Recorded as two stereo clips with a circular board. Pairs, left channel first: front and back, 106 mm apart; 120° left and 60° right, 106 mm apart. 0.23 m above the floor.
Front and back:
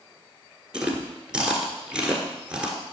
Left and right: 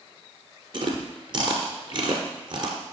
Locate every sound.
0.7 s chewing: 100° right, 1.3 m